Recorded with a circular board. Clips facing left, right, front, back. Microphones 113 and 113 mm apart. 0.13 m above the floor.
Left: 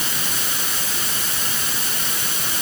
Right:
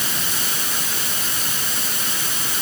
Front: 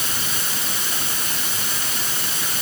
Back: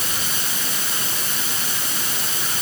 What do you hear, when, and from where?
Only background noise.